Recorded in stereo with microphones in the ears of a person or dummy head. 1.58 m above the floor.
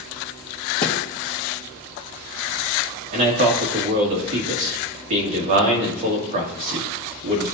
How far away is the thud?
About 0.9 m.